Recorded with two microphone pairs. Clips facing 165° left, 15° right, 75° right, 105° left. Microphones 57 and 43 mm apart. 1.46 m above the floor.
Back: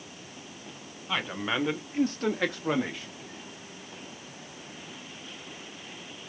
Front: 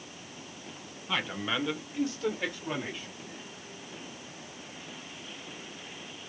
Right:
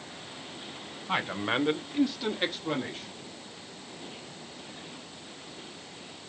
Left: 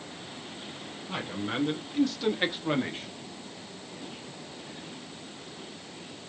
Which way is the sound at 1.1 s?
115° right.